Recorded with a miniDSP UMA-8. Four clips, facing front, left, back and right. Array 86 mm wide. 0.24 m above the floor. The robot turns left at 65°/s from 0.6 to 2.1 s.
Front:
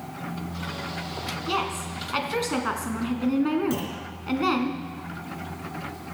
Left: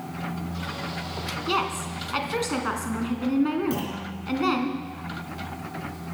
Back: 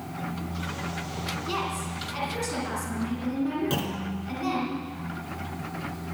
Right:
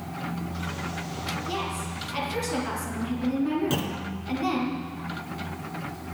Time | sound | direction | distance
1.5 | a woman speaking | 80° left | 3 m
3.7 | a clunk | 135° right | 2 m